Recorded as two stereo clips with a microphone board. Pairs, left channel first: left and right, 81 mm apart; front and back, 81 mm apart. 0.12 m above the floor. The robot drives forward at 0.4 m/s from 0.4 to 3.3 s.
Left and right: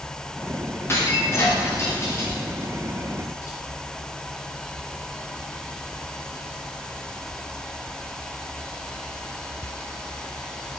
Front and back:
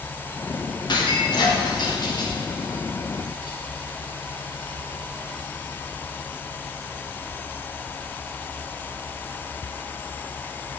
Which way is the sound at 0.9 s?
30° left.